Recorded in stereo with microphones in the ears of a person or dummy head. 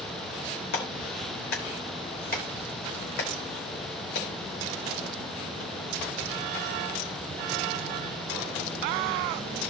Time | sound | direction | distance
0.7 | a clap | 60° left (ahead or behind) | 3 m